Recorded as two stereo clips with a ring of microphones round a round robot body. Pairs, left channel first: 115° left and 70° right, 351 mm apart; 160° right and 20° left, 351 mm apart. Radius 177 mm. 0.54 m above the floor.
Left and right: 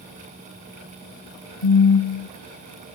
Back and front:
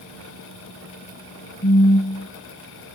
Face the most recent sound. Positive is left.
turn(degrees=125)